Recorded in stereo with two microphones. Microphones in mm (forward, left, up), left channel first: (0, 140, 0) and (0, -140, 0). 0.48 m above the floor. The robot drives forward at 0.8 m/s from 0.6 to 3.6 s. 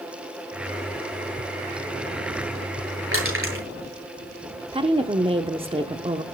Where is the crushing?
50° right (ahead or behind), 8 m; by 3.6 s 45° right (ahead or behind), 8 m.